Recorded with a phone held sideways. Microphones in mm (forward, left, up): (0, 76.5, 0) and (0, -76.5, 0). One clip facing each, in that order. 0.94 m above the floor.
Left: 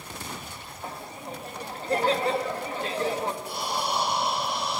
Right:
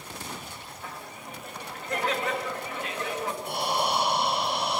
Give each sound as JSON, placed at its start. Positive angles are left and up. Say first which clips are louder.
{"t": 0.8, "sound": "laughter", "louder": "left 5 dB", "side_deg": 30, "distance_m": 1.6}
{"t": 3.4, "sound": "breathing", "louder": "right 2 dB", "side_deg": -65, "distance_m": 4.5}